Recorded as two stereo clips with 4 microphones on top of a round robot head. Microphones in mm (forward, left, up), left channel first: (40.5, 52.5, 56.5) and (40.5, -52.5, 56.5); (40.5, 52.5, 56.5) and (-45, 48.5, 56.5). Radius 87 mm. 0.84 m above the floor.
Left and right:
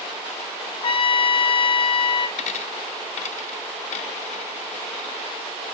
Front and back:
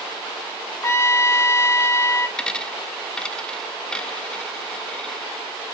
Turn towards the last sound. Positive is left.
turn(degrees=85)